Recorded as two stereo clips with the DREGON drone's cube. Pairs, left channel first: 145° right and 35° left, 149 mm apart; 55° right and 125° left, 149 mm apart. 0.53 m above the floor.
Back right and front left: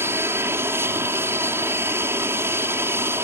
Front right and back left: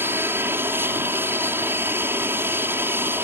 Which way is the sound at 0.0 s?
75° left.